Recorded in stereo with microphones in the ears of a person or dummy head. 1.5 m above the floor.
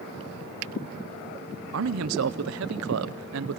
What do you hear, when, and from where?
1.7 s a man speaking: 65° right (ahead or behind), 0.7 m